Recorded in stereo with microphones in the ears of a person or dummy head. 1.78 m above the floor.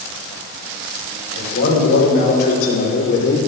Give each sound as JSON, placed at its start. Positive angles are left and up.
{"t": 1.4, "sound": "a man speaking", "side_deg": 60, "distance_m": 7.0}